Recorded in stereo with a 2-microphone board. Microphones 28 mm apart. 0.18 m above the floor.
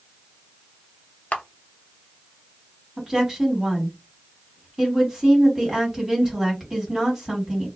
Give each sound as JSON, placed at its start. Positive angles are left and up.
{"t": 1.3, "sound": "a camera shutter", "side_deg": 55, "distance_m": 0.7}
{"t": 3.0, "sound": "a woman speaking", "side_deg": -15, "distance_m": 1.5}